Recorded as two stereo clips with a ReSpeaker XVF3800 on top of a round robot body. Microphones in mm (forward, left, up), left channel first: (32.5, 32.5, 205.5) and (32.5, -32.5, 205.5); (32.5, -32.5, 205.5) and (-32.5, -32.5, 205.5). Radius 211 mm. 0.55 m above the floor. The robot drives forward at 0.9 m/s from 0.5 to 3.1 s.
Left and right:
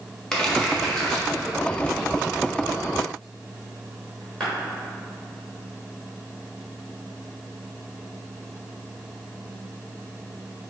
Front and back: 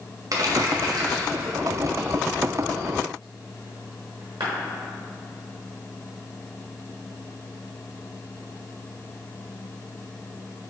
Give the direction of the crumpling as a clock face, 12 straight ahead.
6 o'clock.